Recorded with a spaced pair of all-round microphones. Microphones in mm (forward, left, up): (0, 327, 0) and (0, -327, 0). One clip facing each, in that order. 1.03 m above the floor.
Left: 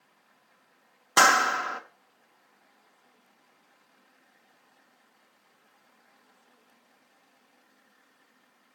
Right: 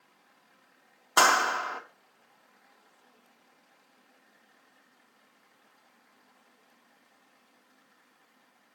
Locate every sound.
1.2 s a clap: 50° left (ahead or behind), 0.7 m